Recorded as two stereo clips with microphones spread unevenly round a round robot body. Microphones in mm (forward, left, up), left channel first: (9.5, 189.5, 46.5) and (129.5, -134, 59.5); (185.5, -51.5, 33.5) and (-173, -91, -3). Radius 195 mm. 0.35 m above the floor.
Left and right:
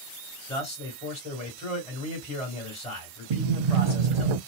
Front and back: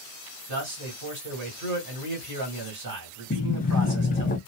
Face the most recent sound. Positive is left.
turn(degrees=-65)